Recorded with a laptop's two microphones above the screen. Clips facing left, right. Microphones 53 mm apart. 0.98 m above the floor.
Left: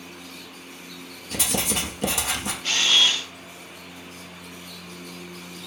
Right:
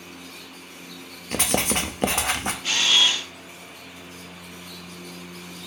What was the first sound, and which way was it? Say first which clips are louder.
Writing: right 3 dB; 45° right (ahead or behind).